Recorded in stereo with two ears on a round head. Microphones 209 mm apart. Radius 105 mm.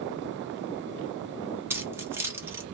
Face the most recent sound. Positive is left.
turn(degrees=-10)  # may be behind; listen again after turning